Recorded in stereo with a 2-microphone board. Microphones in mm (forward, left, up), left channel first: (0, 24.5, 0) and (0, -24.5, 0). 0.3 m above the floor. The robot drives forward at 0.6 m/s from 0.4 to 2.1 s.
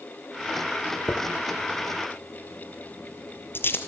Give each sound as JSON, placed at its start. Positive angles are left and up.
{"t": 1.1, "sound": "a dropped coin", "side_deg": 40, "distance_m": 3.5}